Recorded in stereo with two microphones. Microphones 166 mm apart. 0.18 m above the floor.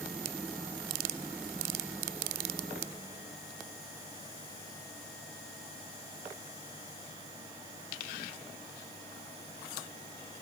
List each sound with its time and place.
Only background noise.